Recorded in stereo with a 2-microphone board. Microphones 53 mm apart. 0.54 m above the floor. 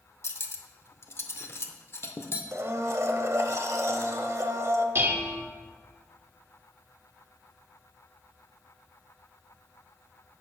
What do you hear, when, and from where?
0.2 s cutlery clinking: 55° left (ahead or behind), 0.5 m
2.5 s a blender: 65° right (ahead or behind), 0.5 m
5.0 s dishes clattering: 45° right (ahead or behind), 0.8 m